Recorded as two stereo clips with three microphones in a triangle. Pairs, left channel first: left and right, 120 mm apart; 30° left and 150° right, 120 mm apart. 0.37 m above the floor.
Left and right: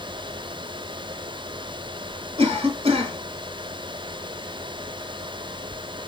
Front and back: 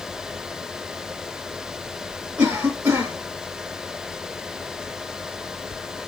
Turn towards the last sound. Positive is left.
turn(degrees=-75)